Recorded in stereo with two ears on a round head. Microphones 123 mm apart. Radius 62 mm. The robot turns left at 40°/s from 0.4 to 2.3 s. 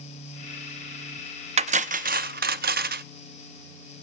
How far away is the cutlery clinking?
About 0.6 m.